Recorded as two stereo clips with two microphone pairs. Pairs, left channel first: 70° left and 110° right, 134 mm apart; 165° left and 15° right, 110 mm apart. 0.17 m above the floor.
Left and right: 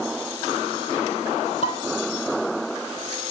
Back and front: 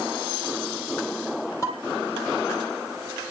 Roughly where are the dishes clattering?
Left.